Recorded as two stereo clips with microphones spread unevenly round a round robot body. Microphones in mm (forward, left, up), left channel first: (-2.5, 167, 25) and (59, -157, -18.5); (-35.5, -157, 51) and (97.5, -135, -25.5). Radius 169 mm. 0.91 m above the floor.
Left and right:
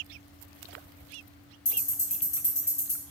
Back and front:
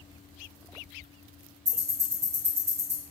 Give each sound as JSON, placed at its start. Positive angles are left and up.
{"t": 1.6, "sound": "ticking", "azimuth_deg": 50, "distance_m": 1.7}